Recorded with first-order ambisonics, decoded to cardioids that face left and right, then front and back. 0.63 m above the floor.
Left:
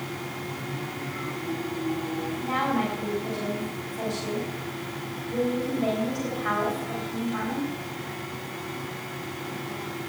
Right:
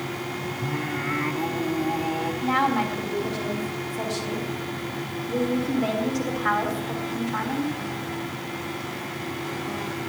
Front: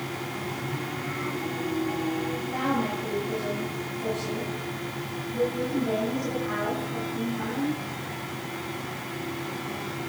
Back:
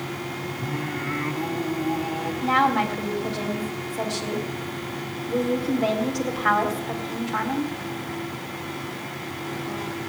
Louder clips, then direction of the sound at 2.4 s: Right 4 dB, back 11 dB; 160° right.